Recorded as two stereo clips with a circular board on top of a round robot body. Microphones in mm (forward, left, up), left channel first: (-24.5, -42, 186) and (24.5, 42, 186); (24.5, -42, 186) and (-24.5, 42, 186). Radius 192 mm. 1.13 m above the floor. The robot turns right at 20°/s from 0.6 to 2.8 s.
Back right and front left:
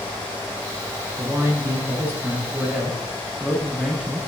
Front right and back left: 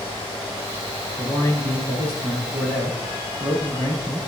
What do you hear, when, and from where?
1.2 s a man speaking: 110° left, 2.5 m; by 4.2 s 145° left, 2.5 m